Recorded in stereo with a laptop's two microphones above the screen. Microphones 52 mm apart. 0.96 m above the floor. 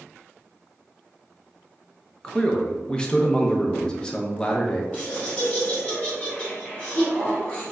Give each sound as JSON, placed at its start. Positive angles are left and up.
{"t": 2.2, "sound": "a man speaking", "side_deg": 15, "distance_m": 0.6}
{"t": 4.9, "sound": "laughter", "side_deg": 25, "distance_m": 1.6}